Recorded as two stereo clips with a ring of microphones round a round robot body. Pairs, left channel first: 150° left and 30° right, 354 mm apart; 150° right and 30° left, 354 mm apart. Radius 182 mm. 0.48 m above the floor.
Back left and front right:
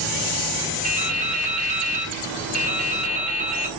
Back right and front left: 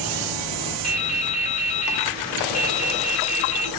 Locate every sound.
0.8 s dripping: 90° right, 1.2 m